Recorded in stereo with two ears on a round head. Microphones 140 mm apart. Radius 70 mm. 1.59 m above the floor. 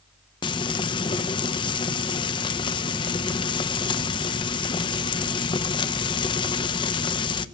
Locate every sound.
0.4 s frying: 30° left (ahead or behind), 0.6 m